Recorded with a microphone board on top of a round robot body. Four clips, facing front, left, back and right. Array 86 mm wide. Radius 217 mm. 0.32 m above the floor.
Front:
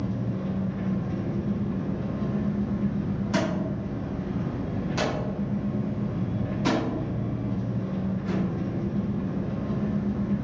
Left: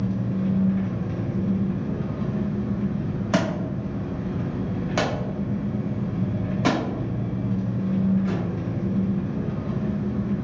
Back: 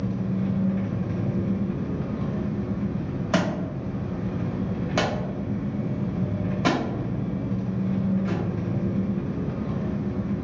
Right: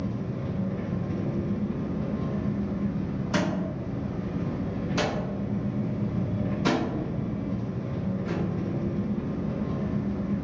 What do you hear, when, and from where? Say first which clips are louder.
0.0 s an engine running: left 6 dB, back 3 dB; 130° left, 1.4 m
3.3 s a thud: left 3 dB, back 3 dB; 125° left, 1.2 m